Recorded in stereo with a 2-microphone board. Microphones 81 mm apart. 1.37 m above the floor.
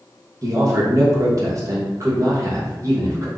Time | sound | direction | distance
0.4 | a man speaking | 40° right (ahead or behind) | 1.0 m